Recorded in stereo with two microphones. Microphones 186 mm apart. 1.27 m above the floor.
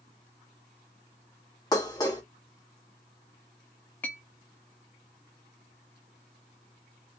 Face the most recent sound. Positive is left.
turn(degrees=10)  # may be behind; listen again after turning